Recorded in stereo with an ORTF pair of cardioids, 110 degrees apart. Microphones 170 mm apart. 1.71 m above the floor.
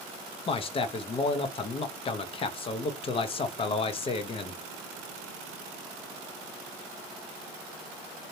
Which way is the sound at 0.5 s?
35° left.